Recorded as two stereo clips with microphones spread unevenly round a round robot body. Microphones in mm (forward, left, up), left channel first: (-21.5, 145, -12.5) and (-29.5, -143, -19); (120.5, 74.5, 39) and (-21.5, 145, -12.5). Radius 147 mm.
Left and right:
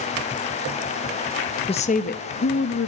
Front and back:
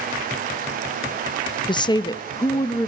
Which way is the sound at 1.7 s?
45° left.